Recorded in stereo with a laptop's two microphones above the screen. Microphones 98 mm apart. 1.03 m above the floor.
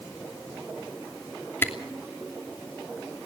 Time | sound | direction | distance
1.6 | a camera shutter | 25° left (ahead or behind) | 3 m